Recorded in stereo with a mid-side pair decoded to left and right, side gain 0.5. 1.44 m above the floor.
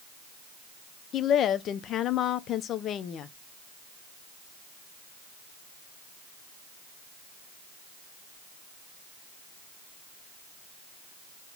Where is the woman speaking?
60° left, 0.7 m.